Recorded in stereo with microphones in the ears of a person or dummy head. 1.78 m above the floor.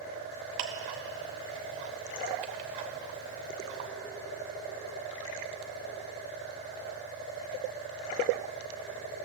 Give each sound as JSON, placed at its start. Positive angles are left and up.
{"t": 0.6, "sound": "ticking", "side_deg": -30, "distance_m": 0.5}